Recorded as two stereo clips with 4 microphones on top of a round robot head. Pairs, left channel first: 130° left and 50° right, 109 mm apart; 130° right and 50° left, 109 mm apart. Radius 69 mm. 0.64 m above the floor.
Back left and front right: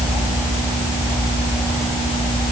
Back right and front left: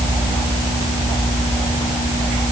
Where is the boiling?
No boiling in this recording.